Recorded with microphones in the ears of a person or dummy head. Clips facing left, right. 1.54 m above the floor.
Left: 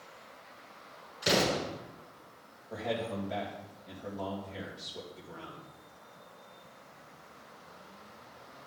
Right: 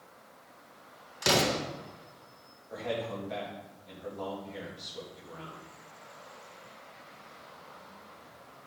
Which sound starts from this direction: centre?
A man speaking, at 2.7 s.